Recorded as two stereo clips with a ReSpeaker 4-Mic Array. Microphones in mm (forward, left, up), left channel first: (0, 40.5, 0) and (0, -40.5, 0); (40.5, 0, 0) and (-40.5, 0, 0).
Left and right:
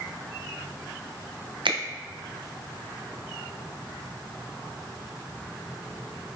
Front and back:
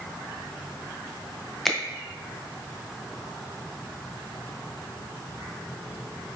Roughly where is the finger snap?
Right.